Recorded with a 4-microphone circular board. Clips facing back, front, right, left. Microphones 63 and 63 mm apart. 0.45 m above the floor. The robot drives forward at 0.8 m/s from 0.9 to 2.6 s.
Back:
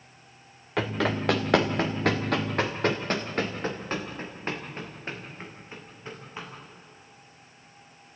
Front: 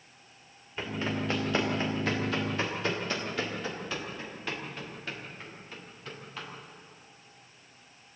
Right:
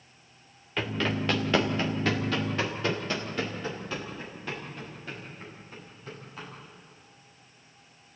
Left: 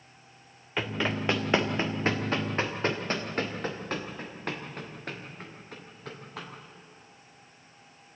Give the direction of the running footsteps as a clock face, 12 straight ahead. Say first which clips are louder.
Back 6 dB, right 1 dB; 6 o'clock.